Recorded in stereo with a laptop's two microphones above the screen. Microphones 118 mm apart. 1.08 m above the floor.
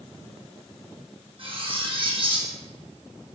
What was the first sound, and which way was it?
Cutlery clinking, 45° right (ahead or behind).